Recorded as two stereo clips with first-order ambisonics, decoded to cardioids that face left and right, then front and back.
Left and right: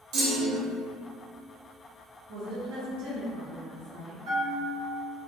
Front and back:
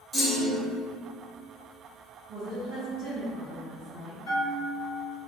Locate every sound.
0.1 s a clunk: 80° right, 0.8 m
2.3 s a woman speaking: 115° right, 0.7 m
4.2 s a bell: 80° right, 1.8 m